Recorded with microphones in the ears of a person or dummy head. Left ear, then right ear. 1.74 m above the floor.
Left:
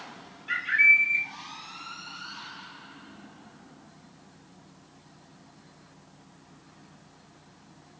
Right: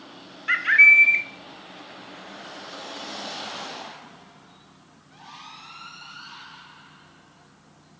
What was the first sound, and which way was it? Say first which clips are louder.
A bird: right 6 dB; 50° right (ahead or behind).